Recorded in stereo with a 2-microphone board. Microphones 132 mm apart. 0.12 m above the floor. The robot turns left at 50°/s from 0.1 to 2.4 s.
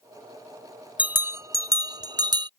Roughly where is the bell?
Ahead.